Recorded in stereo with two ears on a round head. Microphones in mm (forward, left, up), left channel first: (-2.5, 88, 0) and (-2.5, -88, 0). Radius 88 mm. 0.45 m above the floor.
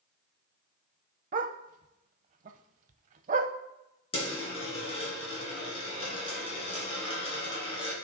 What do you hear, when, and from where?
1.3 s a dog barking: 45° right (ahead or behind), 0.6 m
4.1 s a dropped coin: 30° left (ahead or behind), 3 m